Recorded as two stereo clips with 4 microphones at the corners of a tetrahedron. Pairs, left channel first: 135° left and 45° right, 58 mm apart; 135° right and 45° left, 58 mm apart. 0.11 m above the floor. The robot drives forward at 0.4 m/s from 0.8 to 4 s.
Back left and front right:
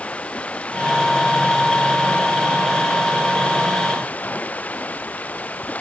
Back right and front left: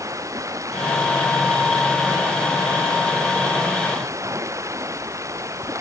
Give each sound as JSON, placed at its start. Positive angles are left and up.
{"t": 0.0, "sound": "running water", "azimuth_deg": 65}